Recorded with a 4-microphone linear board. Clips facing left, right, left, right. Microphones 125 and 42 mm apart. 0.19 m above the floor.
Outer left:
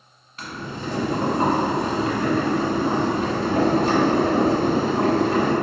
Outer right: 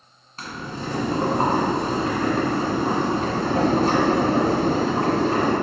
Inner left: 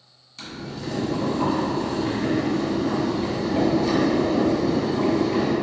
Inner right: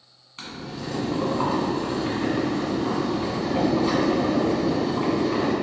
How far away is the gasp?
No gasp in this recording.